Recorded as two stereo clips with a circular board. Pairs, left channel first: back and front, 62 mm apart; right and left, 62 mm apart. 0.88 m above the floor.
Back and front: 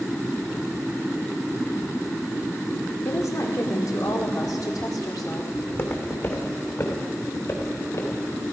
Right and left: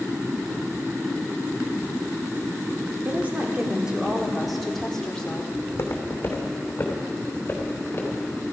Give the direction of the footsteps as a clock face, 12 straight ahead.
4 o'clock.